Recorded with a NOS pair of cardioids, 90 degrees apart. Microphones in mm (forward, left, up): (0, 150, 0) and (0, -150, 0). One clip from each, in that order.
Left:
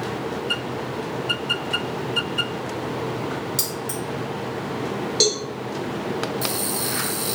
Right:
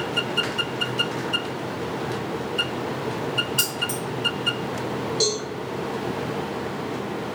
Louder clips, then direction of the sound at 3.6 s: Right 3 dB; 5° left.